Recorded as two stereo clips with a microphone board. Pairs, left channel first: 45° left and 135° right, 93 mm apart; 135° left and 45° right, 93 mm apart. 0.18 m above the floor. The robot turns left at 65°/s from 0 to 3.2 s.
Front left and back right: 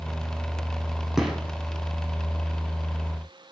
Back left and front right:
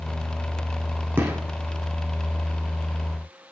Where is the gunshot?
50° right, 0.6 m; by 1.4 s 65° right, 0.6 m.